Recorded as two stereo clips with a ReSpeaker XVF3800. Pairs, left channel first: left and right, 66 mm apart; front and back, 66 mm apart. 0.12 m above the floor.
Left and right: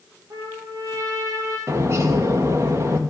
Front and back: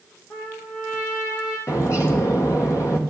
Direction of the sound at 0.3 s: 50° right.